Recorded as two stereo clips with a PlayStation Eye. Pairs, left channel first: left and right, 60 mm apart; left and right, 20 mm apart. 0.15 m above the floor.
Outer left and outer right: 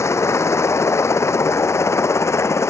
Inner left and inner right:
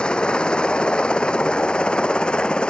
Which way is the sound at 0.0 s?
50° left (ahead or behind).